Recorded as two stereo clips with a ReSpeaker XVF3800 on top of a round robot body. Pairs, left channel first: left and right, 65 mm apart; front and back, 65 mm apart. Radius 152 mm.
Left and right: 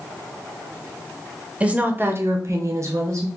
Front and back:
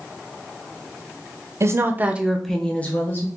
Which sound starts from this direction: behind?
A woman speaking, at 1.6 s.